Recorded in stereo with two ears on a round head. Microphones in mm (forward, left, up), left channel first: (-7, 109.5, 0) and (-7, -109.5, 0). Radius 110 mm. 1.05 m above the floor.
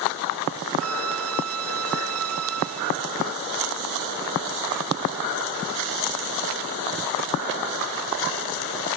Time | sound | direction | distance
0.8 | a violin | 65° right (ahead or behind) | ?